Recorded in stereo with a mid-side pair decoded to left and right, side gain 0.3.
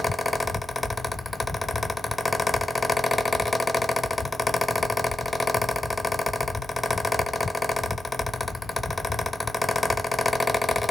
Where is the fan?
35° left, 1.0 m.